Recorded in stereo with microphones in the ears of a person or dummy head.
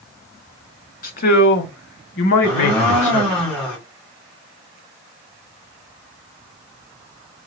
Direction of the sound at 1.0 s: 45° left (ahead or behind).